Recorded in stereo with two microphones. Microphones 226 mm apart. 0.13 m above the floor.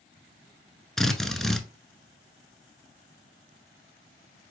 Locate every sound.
1.0 s a drill: centre (ahead or behind), 0.6 m